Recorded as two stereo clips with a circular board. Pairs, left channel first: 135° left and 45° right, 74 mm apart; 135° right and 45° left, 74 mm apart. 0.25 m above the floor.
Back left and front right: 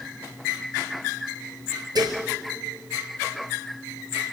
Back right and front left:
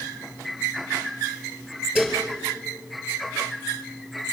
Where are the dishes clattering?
35° right, 3.5 m.